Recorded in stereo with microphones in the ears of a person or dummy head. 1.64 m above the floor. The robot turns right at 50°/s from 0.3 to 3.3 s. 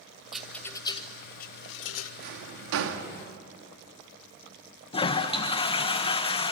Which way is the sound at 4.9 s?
35° left (ahead or behind).